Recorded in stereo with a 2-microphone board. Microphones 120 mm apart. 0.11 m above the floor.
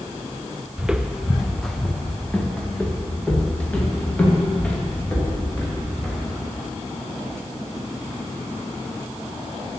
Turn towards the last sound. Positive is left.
turn(degrees=10)  # may be behind; listen again after turning